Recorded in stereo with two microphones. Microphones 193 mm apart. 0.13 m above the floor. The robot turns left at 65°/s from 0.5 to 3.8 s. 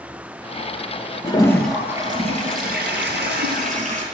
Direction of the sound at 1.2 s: 30° left.